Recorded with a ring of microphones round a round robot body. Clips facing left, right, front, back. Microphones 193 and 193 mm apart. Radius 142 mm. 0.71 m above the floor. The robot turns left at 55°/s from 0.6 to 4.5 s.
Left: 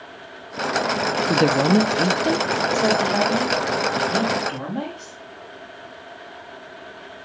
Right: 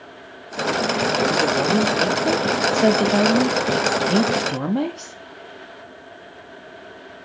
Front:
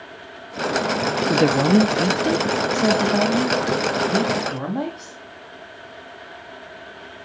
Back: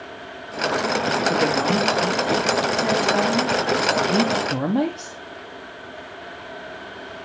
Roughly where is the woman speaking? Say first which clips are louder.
Left 2 dB, front 6 dB; ahead left.